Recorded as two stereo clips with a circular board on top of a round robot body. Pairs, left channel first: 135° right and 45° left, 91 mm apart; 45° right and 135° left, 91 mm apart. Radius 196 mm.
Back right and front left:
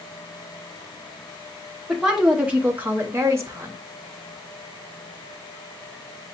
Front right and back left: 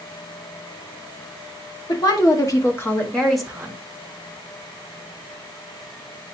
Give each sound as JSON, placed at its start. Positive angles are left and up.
{"t": 1.9, "sound": "a woman speaking", "azimuth_deg": -40, "distance_m": 1.6}